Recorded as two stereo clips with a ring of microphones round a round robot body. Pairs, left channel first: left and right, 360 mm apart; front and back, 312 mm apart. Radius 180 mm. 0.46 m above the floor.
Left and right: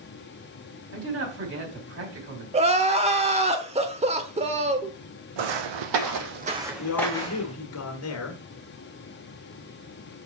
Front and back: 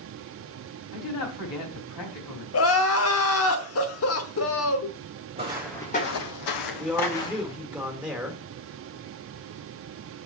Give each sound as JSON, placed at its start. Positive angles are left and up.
{"t": 0.9, "sound": "a man speaking", "azimuth_deg": -35, "distance_m": 4.0}
{"t": 2.5, "sound": "crying", "azimuth_deg": -25, "distance_m": 1.0}
{"t": 5.4, "sound": "footsteps", "azimuth_deg": -105, "distance_m": 1.5}
{"t": 6.8, "sound": "a man speaking", "azimuth_deg": 95, "distance_m": 1.5}